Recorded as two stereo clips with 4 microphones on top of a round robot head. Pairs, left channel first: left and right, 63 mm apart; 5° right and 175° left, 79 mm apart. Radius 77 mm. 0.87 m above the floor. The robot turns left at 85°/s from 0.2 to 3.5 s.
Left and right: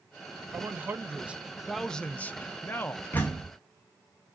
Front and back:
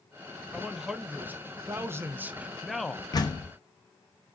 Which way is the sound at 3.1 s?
30° left.